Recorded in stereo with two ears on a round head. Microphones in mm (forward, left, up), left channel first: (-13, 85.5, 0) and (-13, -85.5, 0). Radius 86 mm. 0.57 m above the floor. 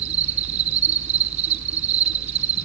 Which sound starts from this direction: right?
An insect, at 0.0 s.